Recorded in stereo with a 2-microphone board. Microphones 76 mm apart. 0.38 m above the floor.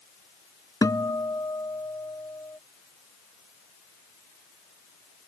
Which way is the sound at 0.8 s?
50° left (ahead or behind).